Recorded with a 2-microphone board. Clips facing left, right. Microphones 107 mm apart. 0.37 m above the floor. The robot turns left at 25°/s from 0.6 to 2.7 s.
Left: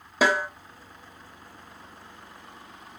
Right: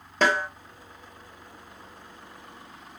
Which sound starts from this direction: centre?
A snare drum, at 0.2 s.